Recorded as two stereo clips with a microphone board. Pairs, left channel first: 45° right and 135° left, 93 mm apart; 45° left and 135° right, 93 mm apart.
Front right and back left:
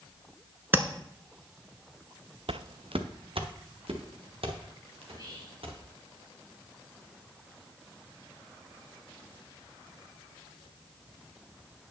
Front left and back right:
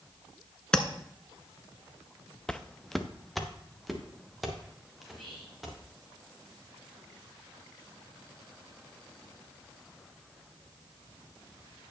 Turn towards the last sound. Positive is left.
turn(degrees=135)